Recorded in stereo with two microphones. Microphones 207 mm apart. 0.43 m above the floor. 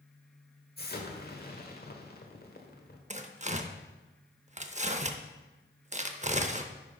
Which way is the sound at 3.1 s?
35° right (ahead or behind).